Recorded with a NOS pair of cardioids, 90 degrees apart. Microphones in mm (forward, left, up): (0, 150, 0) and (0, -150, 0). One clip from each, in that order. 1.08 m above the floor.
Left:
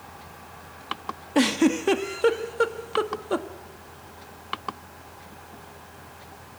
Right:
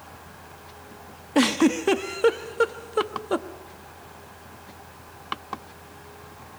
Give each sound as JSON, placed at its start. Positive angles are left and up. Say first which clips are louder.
{"t": 1.4, "sound": "a giggle", "louder": "right 1 dB", "azimuth_deg": -5, "distance_m": 1.1}